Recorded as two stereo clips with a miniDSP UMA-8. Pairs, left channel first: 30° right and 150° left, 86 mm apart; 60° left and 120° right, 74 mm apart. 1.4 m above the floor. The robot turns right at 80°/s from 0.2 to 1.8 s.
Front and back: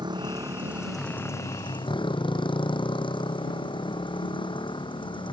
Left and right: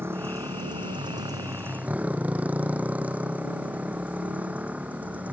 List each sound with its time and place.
0.0 s a motorcycle: straight behind; by 5.3 s 50° right